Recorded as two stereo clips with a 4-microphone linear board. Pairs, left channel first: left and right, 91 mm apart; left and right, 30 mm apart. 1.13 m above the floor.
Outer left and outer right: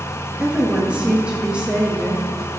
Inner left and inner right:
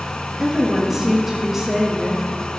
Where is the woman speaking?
10° right (ahead or behind), 1.1 m.